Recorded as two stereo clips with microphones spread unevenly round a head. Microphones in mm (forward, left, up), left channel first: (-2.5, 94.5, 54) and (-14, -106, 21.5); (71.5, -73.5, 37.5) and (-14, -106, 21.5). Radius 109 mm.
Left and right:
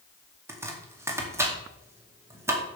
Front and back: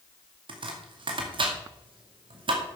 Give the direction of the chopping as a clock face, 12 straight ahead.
6 o'clock.